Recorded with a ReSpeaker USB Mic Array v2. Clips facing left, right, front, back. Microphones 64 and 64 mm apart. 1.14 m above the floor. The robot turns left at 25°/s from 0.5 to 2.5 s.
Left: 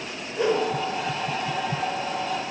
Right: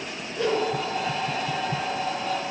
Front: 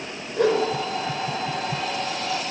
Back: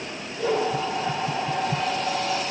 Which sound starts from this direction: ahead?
A whoosh, at 0.4 s.